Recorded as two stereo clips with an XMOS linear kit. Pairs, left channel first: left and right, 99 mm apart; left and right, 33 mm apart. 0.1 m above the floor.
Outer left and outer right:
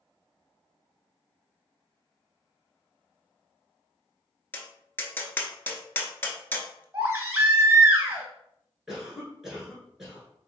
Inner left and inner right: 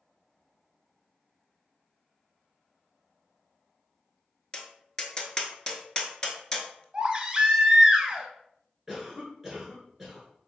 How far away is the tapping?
About 0.7 m.